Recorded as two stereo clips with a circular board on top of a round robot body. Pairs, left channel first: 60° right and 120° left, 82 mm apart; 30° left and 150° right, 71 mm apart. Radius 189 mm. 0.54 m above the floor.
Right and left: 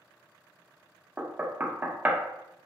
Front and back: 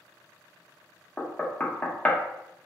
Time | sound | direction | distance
1.2 | knocking | 75° left | 0.6 m